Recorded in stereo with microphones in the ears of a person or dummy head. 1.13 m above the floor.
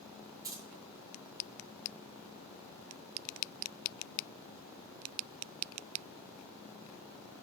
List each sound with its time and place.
0.4 s keys jangling: 25° right (ahead or behind), 1.0 m